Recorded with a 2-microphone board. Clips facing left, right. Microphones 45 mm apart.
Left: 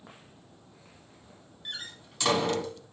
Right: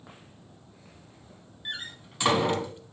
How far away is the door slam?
About 0.7 m.